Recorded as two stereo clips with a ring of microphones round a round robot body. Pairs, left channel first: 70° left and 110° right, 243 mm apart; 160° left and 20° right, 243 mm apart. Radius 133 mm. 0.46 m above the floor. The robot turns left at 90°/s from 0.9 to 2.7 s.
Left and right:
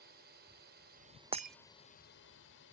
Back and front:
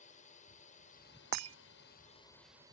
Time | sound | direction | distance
0.0 | a drone | 150° right | ?
1.3 | breaking glass | 45° right | ?